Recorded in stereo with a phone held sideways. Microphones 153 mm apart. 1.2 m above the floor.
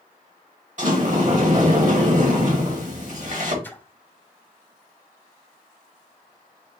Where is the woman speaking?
No woman speaking in this recording.